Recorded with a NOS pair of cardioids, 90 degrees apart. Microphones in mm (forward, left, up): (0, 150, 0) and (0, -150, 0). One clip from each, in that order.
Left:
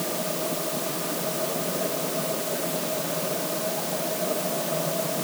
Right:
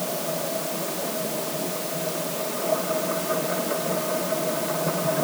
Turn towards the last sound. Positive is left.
No sound to turn to.